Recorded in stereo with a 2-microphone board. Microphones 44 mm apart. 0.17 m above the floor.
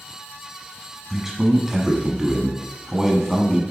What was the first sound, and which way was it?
A man speaking, 10° right (ahead or behind).